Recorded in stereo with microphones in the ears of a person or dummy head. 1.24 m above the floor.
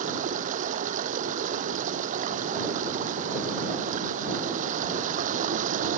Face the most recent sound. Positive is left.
turn(degrees=-45)  # may be behind; listen again after turning